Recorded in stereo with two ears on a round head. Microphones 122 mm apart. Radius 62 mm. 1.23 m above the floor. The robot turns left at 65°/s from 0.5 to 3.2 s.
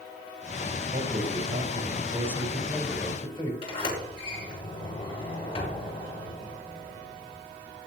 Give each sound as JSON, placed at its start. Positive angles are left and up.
{"t": 0.9, "sound": "a man speaking", "azimuth_deg": -70, "distance_m": 4.5}
{"t": 3.6, "sound": "a sliding door", "side_deg": 50, "distance_m": 6.0}